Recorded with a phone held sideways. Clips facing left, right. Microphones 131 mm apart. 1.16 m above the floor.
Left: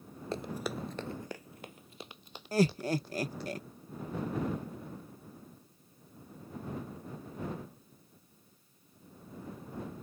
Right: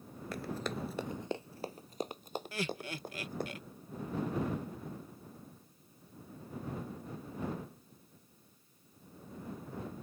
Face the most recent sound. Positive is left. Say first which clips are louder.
# left 14 dB
turn(degrees=40)  # may be behind; listen again after turning